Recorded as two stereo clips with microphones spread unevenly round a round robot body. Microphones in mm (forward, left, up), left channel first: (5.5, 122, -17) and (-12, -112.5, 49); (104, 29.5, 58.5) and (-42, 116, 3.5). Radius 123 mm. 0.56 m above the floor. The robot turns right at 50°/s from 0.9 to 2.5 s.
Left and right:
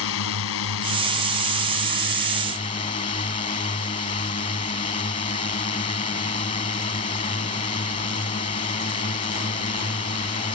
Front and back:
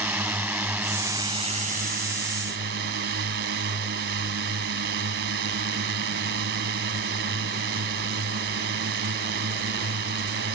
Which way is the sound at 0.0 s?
70° left.